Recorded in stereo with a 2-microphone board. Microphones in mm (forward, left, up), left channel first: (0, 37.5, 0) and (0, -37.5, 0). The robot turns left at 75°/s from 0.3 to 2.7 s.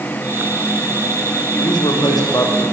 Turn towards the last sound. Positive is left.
turn(degrees=25)